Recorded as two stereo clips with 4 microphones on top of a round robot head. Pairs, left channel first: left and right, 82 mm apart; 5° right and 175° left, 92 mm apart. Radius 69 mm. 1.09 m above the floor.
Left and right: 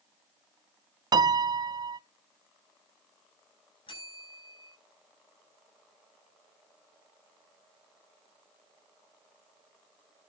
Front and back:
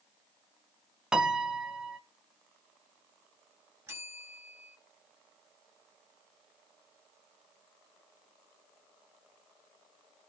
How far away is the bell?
About 5.5 m.